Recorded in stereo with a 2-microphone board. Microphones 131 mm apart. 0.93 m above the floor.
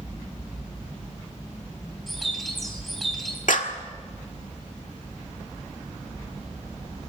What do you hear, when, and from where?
2.1 s a bird: centre (ahead or behind), 4.5 m
3.5 s a clap: 80° left, 1.8 m